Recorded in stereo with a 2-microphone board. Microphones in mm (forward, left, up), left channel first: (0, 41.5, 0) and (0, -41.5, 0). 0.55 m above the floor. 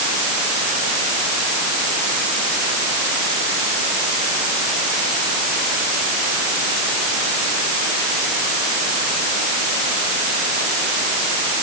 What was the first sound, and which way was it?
Only background noise.